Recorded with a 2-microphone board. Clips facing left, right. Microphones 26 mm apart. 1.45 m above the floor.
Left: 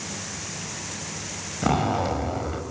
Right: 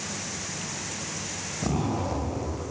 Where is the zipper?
70° left (ahead or behind), 5.5 m.